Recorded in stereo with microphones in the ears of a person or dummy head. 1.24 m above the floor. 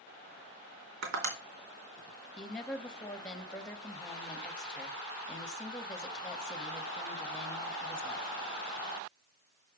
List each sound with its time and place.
1.0 s tapping: 65° right (ahead or behind), 3 m
2.4 s a woman speaking: centre (ahead or behind), 1.8 m